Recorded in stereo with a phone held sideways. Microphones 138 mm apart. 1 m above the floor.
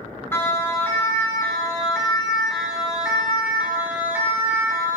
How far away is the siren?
About 9 m.